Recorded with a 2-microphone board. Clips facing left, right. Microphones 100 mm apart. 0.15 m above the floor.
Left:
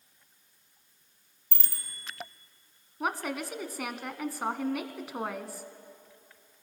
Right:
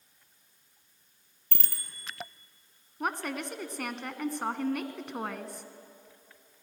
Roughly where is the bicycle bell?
Right.